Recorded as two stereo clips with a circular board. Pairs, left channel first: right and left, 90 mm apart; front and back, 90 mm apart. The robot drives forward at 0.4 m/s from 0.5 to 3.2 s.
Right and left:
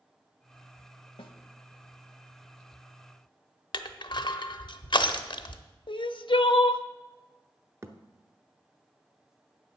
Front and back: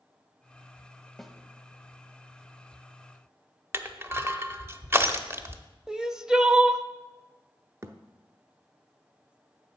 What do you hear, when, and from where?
1.2 s a snare drum: 85° right, 0.8 m; by 1.4 s 90° right, 0.8 m
3.7 s crushing: 120° right, 0.7 m
5.9 s crying: 100° right, 0.5 m
7.8 s a thud: 135° left, 0.8 m